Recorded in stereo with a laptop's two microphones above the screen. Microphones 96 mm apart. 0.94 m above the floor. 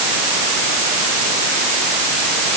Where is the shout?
No shout in this recording.